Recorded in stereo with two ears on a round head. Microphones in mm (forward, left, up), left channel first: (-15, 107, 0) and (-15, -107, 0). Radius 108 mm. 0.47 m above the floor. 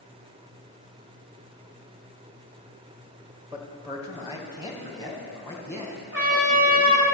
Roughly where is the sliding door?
No sliding door in this recording.